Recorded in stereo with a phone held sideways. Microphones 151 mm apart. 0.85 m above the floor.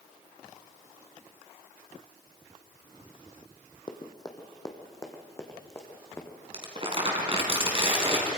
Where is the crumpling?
40° right (ahead or behind), 3.5 m.